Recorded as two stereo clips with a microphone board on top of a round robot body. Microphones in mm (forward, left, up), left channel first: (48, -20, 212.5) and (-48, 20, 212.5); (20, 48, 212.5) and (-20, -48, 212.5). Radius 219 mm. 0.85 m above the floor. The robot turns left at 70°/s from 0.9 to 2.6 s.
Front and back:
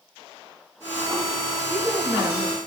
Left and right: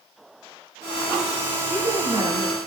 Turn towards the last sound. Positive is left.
turn(degrees=-170)